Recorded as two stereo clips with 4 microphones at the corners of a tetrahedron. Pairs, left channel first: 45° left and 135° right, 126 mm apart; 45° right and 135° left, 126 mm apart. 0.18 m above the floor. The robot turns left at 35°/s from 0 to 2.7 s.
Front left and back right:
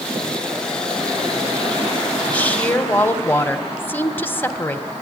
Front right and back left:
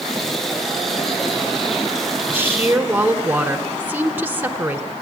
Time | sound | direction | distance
2.3 | a woman speaking | 105° left | 1.2 m